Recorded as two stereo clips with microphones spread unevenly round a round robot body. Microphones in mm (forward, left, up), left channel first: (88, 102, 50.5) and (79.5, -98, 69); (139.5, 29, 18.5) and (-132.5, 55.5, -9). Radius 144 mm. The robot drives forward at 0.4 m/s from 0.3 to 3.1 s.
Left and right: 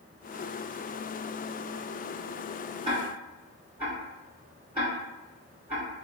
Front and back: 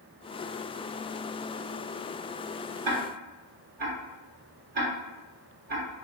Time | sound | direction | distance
2.9 | ticking | 165° right | 1.2 m